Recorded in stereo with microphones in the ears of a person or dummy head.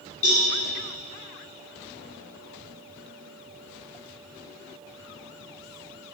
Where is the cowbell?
40° left (ahead or behind), 1.9 m.